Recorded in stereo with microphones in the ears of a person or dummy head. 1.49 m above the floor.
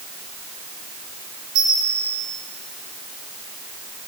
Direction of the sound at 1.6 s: 30° right (ahead or behind).